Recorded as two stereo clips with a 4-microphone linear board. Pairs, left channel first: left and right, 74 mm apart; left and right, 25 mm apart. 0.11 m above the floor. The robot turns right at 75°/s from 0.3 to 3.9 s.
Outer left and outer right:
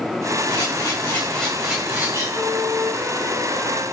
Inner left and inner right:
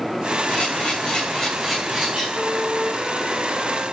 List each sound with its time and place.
0.5 s a camera shutter: 95° left, 8.5 m; by 2.2 s 135° right, 8.5 m
2.3 s a flute: 170° left, 6 m; by 3.8 s 80° right, 6 m